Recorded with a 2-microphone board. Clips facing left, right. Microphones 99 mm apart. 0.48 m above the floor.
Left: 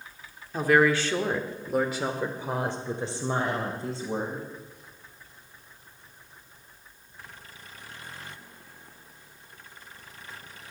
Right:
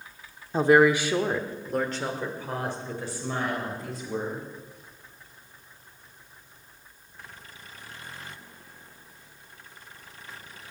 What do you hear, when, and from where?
0.5 s a woman speaking: 30° right (ahead or behind), 1.0 m; by 4.5 s 35° left (ahead or behind), 2.5 m